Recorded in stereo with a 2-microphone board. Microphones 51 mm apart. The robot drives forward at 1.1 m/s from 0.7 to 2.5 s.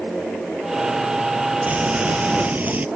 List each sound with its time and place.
1.7 s frying: 35° right (ahead or behind)